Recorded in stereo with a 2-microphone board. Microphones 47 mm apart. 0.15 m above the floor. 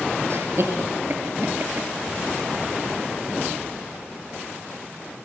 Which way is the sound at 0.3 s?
60° right (ahead or behind).